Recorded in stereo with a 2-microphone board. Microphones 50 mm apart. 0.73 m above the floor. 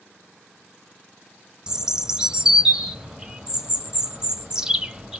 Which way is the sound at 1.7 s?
15° right (ahead or behind).